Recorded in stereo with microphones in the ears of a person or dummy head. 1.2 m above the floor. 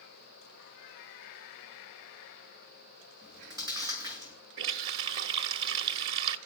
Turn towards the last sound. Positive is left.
turn(degrees=-65)  # may be behind; listen again after turning